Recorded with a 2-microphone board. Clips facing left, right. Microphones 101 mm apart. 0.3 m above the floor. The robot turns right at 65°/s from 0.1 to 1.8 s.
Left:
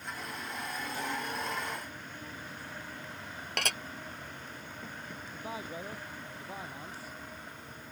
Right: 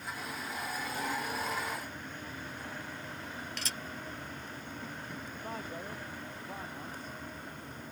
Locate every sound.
3.6 s dishes clattering: 70° left (ahead or behind)
5.3 s a man speaking: 5° left (ahead or behind)